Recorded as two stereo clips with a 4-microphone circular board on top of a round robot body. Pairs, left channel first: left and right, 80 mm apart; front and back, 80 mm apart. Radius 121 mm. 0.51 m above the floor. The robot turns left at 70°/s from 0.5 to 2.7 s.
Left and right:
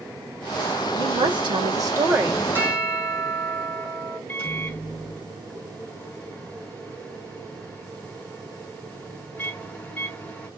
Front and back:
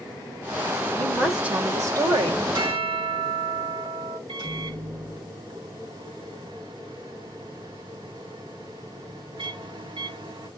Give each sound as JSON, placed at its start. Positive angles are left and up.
{"t": 0.9, "sound": "a woman speaking", "azimuth_deg": -70, "distance_m": 2.0}
{"t": 2.5, "sound": "a bell", "azimuth_deg": -155, "distance_m": 3.5}
{"t": 4.3, "sound": "a microwave", "azimuth_deg": 165, "distance_m": 3.5}